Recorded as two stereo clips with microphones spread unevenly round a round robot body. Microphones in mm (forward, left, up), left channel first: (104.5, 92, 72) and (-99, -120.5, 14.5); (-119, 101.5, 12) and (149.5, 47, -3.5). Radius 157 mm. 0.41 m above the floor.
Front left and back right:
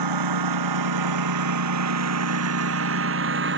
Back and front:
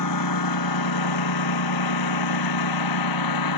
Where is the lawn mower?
155° right; by 3.6 s 170° left.